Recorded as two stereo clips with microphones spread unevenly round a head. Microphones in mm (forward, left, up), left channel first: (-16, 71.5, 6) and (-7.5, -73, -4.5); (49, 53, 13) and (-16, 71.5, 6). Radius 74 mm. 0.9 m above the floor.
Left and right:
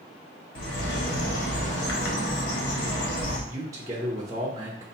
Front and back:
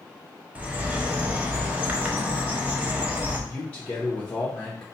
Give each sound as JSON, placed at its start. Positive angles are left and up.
{"t": 0.6, "sound": "a bird", "azimuth_deg": 95, "distance_m": 1.2}
{"t": 3.5, "sound": "a man speaking", "azimuth_deg": -75, "distance_m": 0.7}